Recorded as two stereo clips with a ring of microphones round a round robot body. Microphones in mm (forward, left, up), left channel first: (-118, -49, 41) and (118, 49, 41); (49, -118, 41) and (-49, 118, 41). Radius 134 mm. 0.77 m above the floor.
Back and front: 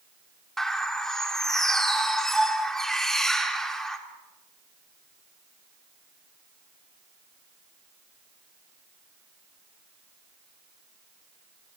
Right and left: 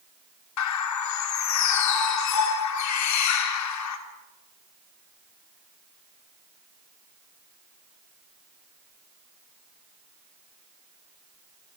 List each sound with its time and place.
0.6 s a bird: 70° right, 2.5 m